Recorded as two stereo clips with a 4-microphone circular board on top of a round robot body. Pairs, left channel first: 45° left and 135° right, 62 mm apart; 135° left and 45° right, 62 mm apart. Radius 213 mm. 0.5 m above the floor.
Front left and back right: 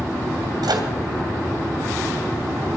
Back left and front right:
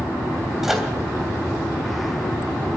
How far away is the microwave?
About 3 m.